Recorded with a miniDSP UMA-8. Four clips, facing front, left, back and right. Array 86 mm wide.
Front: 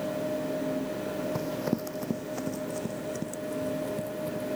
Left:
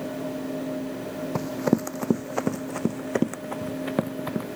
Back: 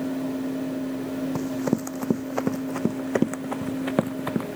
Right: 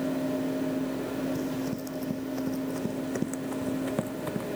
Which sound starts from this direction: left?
Running footsteps, at 1.4 s.